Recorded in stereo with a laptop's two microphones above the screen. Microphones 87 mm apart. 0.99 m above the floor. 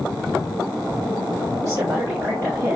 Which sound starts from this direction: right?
A woman speaking, at 1.6 s.